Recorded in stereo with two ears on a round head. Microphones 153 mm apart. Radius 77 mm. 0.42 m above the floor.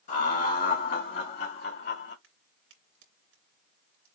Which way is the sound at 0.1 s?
45° left (ahead or behind).